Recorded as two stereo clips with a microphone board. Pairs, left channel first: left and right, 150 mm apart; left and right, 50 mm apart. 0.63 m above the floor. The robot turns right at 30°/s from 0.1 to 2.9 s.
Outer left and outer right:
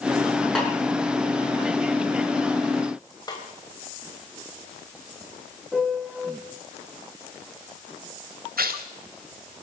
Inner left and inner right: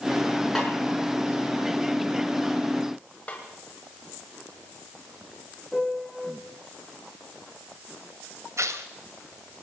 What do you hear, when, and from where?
0.6 s a snare drum: 5° left (ahead or behind), 5 m; by 0.7 s 10° left (ahead or behind), 5 m
3.3 s a snare drum: 30° left (ahead or behind), 3 m
5.7 s a piano: 5° right (ahead or behind), 1.9 m
8.6 s tearing paper: 85° right, 1.4 m